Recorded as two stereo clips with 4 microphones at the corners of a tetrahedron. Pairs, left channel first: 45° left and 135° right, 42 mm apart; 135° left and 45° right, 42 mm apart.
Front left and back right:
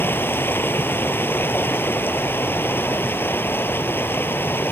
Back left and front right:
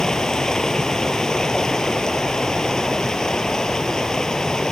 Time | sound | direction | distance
0.0 | running water | 60° left | ?